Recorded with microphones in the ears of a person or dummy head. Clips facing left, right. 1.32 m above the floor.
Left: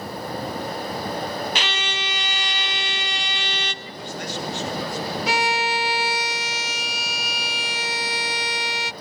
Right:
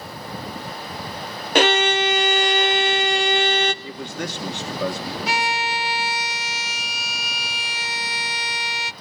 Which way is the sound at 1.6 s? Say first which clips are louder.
Right 12 dB; 45° right (ahead or behind).